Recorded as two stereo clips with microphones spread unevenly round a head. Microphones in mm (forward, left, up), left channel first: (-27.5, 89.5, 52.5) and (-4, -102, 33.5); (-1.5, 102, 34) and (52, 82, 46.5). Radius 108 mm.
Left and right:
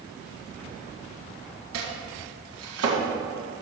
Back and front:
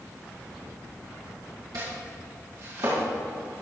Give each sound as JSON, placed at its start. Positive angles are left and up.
{"t": 1.7, "sound": "chopping", "azimuth_deg": -60, "distance_m": 2.0}